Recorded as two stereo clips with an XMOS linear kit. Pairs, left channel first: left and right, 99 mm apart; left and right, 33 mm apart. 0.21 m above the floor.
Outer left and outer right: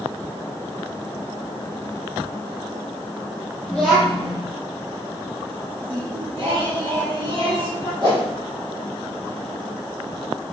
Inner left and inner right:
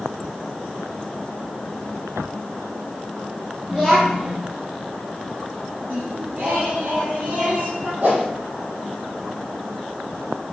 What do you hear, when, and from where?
3.7 s a child speaking: 5° right (ahead or behind), 4.5 m
5.9 s singing: 55° right (ahead or behind), 5.5 m
8.0 s a whoosh: 50° right (ahead or behind), 5.5 m